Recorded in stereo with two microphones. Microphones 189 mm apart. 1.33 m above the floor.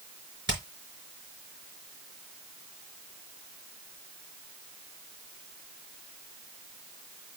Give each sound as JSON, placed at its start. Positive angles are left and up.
{"t": 0.5, "sound": "hammering", "side_deg": -75, "distance_m": 4.5}